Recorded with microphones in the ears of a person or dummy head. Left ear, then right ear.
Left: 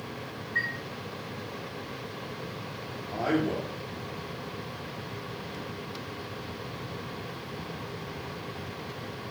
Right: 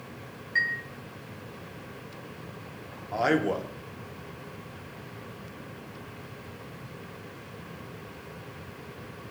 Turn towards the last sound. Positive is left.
turn(degrees=-65)  # may be behind; listen again after turning